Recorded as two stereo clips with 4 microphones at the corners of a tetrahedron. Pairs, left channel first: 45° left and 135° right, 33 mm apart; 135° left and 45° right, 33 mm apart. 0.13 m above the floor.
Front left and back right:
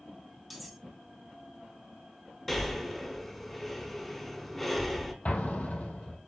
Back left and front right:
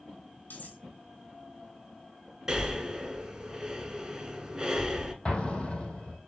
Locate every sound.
0.5 s cutlery clinking: 135° left, 1.9 m
2.5 s breathing: 25° right, 1.0 m
5.2 s an explosion: 80° left, 1.4 m